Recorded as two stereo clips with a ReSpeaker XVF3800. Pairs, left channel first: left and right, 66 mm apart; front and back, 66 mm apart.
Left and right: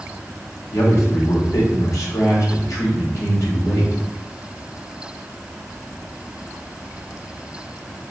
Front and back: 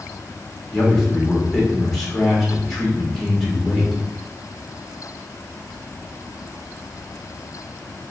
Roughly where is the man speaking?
Left.